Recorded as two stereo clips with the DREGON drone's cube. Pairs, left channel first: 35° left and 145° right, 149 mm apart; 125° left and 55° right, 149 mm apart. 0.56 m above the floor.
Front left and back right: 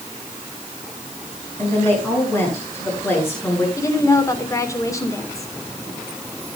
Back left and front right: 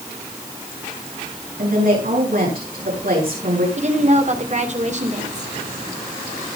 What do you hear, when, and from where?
1.6 s a woman speaking: 40° right, 9 m
3.8 s a woman speaking: 30° right, 2 m